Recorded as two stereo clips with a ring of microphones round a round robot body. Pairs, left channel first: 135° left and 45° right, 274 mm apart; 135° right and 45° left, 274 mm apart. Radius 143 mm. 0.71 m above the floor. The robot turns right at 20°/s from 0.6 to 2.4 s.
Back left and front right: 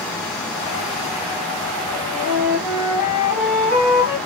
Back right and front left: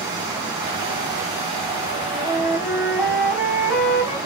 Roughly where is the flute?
Behind left.